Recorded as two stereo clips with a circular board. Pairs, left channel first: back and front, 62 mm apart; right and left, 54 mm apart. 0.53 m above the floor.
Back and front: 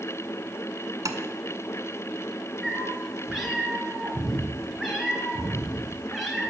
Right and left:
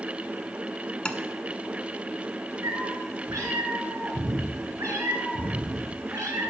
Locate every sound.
1.1 s tapping: 20° right, 1.0 m
2.6 s a cat meowing: 90° left, 2.5 m